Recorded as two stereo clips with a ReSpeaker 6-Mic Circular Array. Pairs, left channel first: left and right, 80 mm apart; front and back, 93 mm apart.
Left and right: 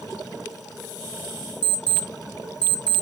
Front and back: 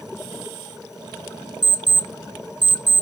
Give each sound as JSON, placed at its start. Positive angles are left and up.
{"t": 1.6, "sound": "an alarm clock", "azimuth_deg": 165, "distance_m": 0.5}